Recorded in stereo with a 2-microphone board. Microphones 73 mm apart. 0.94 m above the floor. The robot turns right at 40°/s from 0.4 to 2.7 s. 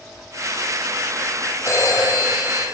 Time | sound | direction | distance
1.7 | a phone ringing | 40° left | 3 m